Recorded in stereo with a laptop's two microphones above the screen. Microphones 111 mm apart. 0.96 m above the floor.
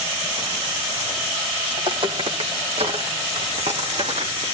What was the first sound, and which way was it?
Footsteps, 50° right (ahead or behind).